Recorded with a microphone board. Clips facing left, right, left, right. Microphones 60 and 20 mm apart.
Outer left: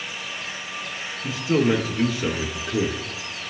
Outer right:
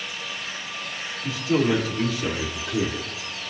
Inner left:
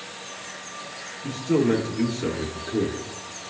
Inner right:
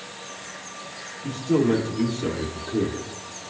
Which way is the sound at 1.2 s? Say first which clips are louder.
Outer left 1 dB, even; 30° left (ahead or behind).